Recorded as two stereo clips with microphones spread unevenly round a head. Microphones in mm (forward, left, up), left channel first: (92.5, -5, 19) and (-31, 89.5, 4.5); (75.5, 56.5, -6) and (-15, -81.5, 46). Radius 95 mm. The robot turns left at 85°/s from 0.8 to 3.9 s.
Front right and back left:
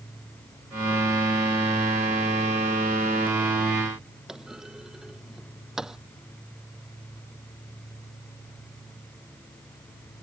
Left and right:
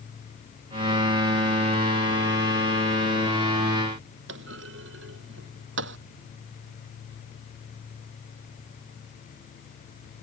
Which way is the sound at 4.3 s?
130° right.